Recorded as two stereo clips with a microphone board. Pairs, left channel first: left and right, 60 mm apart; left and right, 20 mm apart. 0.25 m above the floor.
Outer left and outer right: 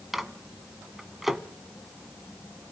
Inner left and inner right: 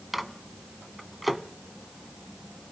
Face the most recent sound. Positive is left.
turn(degrees=-5)  # may be behind; listen again after turning